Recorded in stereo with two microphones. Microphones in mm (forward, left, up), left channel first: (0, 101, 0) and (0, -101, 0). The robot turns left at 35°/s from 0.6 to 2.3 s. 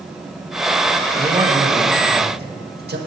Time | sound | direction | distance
1.2 | a man speaking | 15° right | 1.7 m